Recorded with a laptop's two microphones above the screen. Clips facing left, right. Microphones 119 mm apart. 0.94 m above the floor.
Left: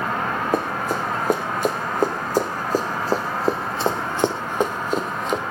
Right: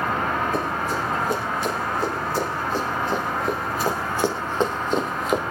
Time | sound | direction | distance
0.5 | running footsteps | 50° left (ahead or behind) | 4 m